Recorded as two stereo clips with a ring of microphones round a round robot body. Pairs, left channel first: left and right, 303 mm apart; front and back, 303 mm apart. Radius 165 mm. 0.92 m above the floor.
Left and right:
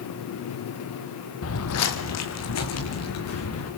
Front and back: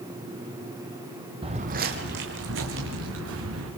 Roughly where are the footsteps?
Left.